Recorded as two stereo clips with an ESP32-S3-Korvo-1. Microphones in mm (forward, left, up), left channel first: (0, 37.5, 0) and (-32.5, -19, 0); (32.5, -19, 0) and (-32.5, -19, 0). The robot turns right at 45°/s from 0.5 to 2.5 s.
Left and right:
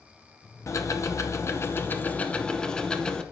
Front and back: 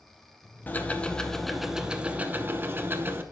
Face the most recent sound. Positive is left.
turn(degrees=135)